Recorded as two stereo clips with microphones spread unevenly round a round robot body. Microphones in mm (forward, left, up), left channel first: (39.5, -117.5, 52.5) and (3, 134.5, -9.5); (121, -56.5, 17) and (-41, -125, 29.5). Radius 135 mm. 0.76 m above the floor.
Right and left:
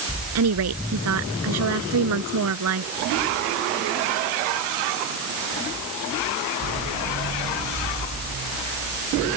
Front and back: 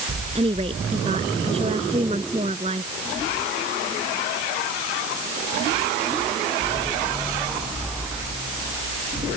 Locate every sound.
0.3 s a woman speaking: 135° left